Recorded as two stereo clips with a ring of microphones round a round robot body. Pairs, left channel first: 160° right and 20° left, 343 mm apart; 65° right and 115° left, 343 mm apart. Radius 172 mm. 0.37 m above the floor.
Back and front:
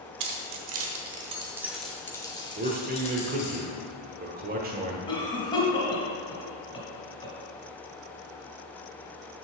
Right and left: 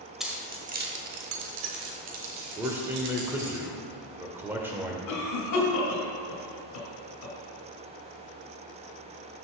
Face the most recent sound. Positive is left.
turn(degrees=-85)